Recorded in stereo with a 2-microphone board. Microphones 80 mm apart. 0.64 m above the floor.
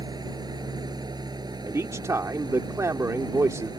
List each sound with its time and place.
0.0 s an engine running: 60° right (ahead or behind)
1.7 s a man speaking: 40° right (ahead or behind)